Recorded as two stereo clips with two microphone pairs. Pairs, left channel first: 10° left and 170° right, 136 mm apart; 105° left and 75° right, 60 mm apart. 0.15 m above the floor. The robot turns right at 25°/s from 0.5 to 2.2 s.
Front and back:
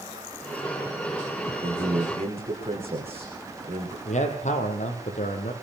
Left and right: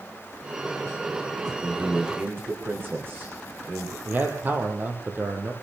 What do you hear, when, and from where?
1.6 s a man speaking: 140° right, 9.5 m; by 4.0 s 125° right, 9.5 m
4.0 s a man speaking: 15° right, 5.5 m